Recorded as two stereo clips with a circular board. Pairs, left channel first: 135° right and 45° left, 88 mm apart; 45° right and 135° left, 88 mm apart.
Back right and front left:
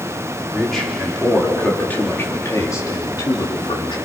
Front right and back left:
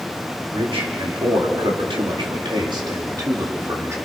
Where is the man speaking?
135° left, 4.5 m; by 4.0 s 165° right, 4 m.